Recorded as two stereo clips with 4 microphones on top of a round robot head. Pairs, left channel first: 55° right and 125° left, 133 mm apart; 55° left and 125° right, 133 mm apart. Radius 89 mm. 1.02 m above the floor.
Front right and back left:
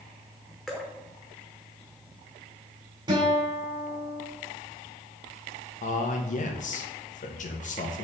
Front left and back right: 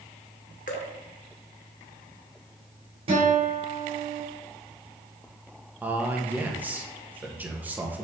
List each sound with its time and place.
0.7 s dripping: 35° left, 0.8 m
3.1 s a guitar: 170° right, 3 m
5.8 s a man speaking: 50° right, 1.2 m